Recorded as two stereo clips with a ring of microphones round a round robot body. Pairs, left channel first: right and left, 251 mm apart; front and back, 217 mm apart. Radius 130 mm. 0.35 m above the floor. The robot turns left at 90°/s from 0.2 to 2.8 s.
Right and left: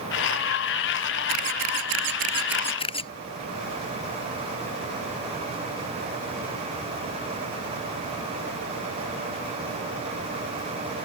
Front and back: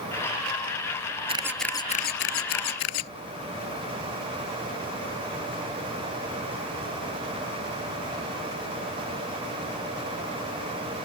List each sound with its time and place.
1.3 s a camera shutter: 115° left; by 3.1 s 20° right